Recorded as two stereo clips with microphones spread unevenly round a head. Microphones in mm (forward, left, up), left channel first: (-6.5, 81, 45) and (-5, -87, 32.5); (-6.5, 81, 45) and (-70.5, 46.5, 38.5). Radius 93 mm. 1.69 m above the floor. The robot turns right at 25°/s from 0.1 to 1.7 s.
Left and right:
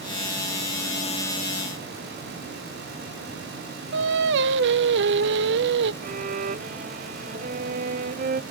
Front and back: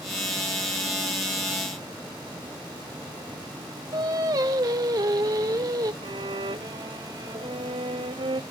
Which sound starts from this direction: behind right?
A violin, at 6.0 s.